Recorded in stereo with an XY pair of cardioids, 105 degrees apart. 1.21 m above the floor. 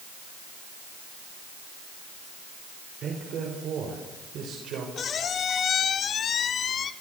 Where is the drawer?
I don't hear a drawer.